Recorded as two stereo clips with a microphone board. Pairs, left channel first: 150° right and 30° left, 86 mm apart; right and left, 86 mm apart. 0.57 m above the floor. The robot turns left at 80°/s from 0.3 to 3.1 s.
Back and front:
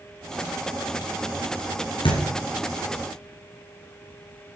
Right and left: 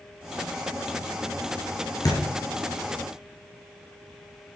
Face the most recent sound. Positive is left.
turn(degrees=140)